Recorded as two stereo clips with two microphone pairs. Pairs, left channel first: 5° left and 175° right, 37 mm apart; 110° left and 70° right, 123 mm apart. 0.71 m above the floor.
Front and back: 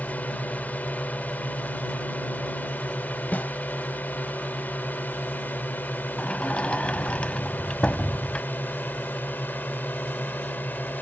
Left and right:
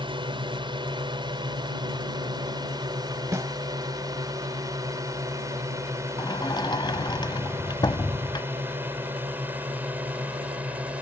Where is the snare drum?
5° right.